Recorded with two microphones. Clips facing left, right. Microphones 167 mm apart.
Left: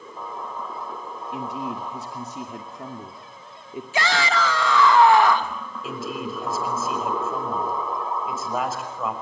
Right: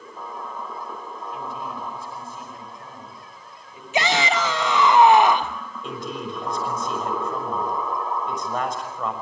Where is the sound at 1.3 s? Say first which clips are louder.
Left 4 dB; 75° left (ahead or behind), 2.5 m.